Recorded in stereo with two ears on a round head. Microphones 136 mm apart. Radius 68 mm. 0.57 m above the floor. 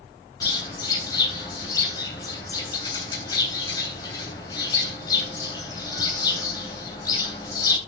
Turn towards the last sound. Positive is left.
turn(degrees=25)  # may be behind; listen again after turning